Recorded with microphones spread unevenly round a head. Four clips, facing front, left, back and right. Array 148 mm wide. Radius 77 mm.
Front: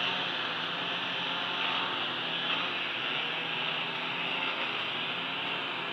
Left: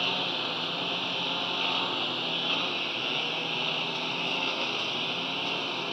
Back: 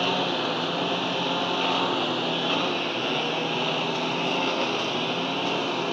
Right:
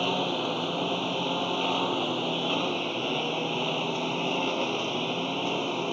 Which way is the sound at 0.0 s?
150° right.